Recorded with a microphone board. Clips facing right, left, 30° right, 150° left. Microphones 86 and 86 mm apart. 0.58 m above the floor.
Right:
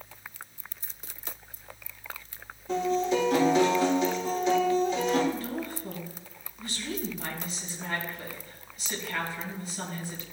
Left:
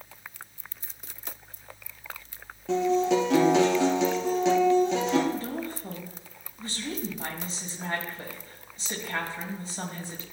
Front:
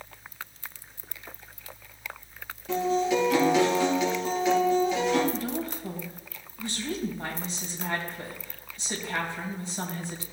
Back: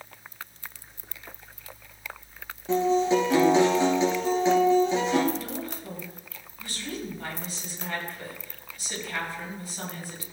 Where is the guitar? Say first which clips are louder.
Left 3 dB, back 3 dB; 90° left, 3 m.